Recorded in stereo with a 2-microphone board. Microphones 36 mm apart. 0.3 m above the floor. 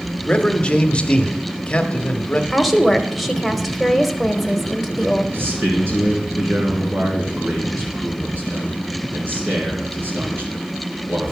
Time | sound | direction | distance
0.2 | a man speaking | 30° left (ahead or behind) | 1.1 m
2.5 | a woman speaking | centre (ahead or behind) | 1.0 m
5.3 | a man speaking | 60° right (ahead or behind) | 3 m